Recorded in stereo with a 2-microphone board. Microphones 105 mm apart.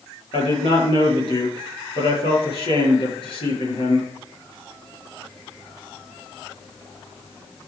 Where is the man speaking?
65° left (ahead or behind), 6 m.